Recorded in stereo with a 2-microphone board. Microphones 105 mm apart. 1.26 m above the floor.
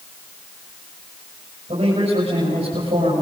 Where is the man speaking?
80° right, 7 m.